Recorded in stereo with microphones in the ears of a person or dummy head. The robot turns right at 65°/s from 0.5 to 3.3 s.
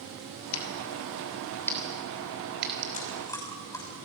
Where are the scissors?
85° left, 3 m; by 2.8 s 55° right (ahead or behind), 3 m.